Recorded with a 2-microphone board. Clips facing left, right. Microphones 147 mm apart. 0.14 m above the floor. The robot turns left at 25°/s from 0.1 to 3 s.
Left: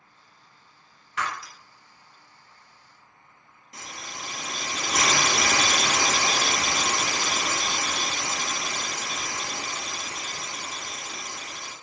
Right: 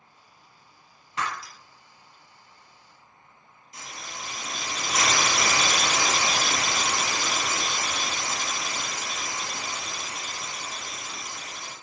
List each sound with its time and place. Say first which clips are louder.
1.2 s breaking glass: even; 30° right (ahead or behind), 0.6 m; by 1.5 s 25° right (ahead or behind), 0.6 m
3.7 s a hiss: even; 60° left (ahead or behind), 0.7 m